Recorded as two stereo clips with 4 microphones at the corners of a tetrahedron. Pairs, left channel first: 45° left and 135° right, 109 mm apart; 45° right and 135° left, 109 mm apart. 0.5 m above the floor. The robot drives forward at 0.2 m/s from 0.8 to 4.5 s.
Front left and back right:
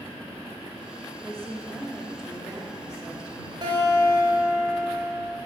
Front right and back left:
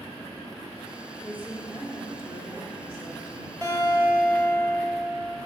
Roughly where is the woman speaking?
Left.